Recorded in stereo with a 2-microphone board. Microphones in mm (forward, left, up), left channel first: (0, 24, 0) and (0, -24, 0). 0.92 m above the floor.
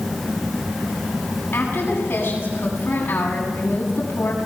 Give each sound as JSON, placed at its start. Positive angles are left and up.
{"t": 1.5, "sound": "a woman speaking", "side_deg": 45, "distance_m": 7.5}